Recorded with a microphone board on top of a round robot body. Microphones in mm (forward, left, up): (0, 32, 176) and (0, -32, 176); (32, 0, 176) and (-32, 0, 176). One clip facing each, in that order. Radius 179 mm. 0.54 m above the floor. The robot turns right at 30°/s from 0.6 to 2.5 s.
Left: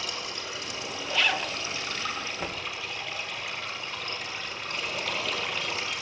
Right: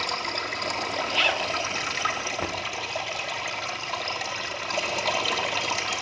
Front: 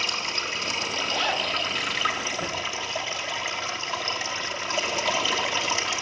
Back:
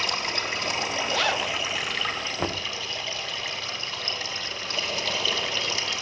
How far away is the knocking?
About 1.4 m.